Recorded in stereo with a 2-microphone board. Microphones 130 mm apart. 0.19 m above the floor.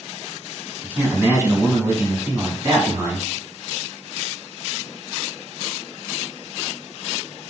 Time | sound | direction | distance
0.8 | a man speaking | 20° right (ahead or behind) | 1.2 m